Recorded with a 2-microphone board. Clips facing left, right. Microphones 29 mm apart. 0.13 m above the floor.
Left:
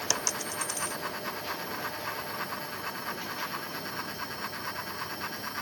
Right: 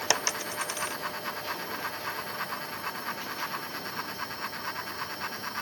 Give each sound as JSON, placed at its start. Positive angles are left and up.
{"t": 0.1, "sound": "a dropped coin", "side_deg": -30}